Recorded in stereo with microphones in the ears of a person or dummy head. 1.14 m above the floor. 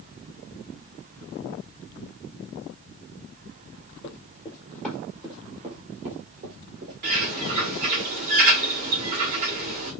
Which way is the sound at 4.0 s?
30° left (ahead or behind).